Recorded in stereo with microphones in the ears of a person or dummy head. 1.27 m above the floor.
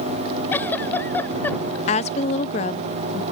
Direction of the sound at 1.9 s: 35° left (ahead or behind).